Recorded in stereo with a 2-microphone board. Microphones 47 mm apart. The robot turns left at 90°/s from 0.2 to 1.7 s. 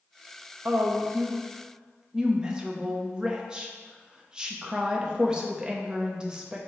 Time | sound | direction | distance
0.7 | a woman speaking | 65° right | 0.7 m